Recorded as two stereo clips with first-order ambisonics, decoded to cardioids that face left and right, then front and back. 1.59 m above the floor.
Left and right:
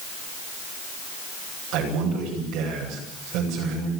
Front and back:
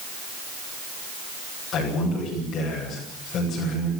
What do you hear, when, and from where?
1.7 s a man speaking: 60° right, 9 m